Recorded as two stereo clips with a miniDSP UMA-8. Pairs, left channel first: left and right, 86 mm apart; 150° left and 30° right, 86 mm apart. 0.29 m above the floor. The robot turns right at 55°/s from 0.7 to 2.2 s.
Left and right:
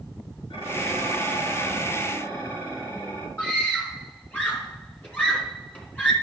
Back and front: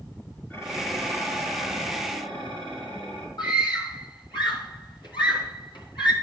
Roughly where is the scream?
Behind.